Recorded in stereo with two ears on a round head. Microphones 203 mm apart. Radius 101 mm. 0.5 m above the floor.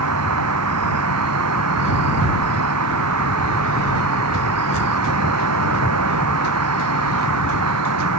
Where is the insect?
80° right.